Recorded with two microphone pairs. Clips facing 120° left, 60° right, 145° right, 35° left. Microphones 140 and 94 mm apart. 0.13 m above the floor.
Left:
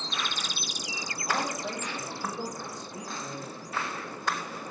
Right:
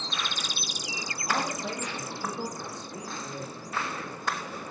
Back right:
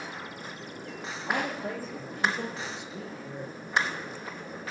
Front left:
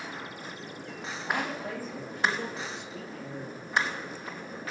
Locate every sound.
1.2 s a man speaking: 165° right, 2.0 m; by 3.6 s 65° right, 1.6 m